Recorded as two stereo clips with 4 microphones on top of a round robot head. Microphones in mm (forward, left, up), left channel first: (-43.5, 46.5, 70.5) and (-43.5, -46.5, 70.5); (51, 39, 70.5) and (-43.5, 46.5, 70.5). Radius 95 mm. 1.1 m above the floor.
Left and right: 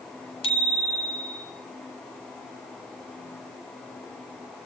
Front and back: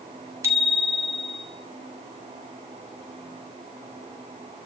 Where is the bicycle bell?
115° left, 5 m.